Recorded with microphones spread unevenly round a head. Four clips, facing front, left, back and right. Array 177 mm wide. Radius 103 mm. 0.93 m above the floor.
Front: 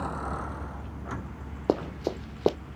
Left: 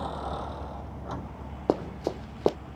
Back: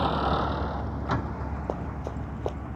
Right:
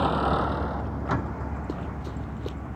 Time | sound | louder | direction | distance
0.0 | a vehicle | right 10 dB, back 8 dB | 105° right | ?
1.7 | running footsteps | left 6 dB, front 9 dB | 45° left | ?